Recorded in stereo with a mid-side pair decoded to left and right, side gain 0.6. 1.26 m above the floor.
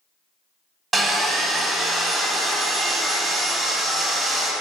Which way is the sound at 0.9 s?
25° right.